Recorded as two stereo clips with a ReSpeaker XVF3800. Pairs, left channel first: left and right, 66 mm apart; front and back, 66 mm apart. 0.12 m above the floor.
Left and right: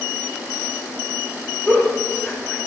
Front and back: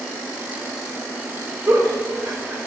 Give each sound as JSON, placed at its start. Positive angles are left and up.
{"t": 1.7, "sound": "a giggle", "azimuth_deg": 155, "distance_m": 0.8}